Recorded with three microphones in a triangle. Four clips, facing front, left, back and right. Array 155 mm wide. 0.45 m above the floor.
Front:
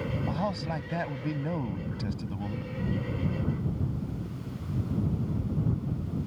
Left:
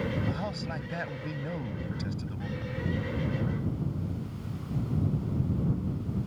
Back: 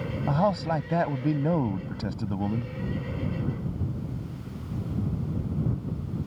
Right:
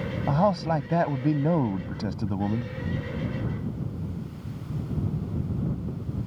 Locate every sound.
0.3 s a man speaking: 120° right